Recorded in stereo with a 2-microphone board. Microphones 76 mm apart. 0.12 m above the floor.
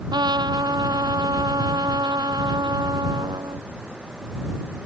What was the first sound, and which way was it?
A trumpet, 70° right (ahead or behind).